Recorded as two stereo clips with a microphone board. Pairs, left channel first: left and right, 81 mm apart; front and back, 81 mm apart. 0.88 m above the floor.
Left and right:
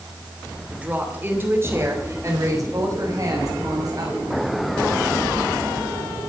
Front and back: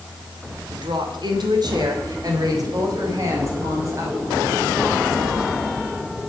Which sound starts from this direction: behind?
A woman speaking, at 0.7 s.